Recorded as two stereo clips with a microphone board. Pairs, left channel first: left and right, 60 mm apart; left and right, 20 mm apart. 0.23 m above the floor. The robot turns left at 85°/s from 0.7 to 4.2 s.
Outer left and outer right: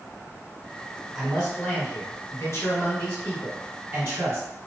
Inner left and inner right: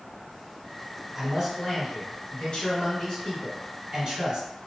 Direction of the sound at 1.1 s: 170° right.